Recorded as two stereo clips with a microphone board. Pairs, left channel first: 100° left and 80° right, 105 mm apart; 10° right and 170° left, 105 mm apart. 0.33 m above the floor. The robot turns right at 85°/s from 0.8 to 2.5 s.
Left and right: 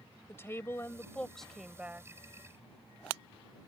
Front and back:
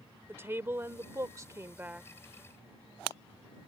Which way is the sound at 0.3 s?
130° left.